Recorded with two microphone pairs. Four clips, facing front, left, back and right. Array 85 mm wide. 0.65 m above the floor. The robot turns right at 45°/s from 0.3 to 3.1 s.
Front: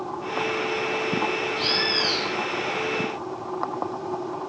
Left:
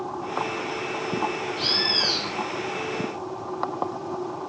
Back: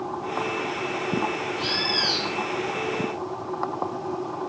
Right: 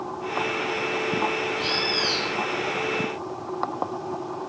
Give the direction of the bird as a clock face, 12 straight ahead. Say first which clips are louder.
Right 2 dB, front 1 dB; 10 o'clock.